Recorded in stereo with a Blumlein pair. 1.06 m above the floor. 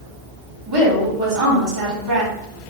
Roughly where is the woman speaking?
Ahead right.